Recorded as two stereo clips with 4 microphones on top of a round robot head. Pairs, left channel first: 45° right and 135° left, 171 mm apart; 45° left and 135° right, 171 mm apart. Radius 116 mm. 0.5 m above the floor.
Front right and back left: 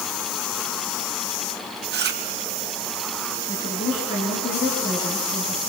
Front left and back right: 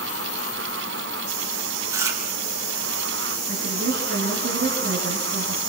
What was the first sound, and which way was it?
Chewing, 155° left.